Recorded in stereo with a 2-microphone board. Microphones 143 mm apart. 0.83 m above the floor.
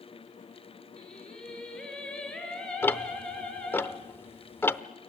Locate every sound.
1.0 s singing: 5° left (ahead or behind), 6.5 m
2.8 s ticking: 15° left (ahead or behind), 0.7 m